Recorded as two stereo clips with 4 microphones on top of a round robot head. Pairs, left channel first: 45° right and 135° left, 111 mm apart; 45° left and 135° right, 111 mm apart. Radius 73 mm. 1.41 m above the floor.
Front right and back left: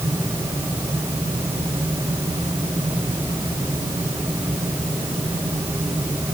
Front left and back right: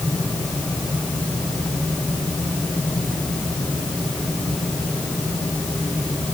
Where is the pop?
No pop in this recording.